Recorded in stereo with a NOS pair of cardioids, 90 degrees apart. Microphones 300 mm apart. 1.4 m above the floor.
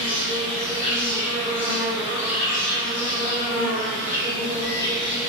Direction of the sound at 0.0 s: 40° left.